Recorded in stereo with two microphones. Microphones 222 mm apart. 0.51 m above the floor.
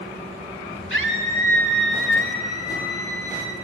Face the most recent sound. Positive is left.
turn(degrees=75)  # may be behind; listen again after turning